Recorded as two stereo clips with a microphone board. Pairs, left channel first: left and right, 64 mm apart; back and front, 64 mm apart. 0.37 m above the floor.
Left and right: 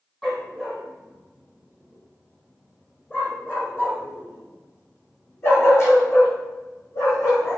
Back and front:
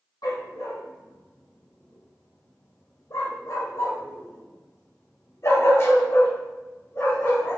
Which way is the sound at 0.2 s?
170° left.